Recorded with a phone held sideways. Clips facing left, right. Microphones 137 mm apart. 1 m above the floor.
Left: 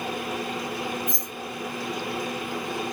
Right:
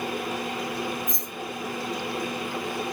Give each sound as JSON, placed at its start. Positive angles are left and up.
{"t": 1.1, "sound": "keys jangling", "side_deg": 65, "distance_m": 1.8}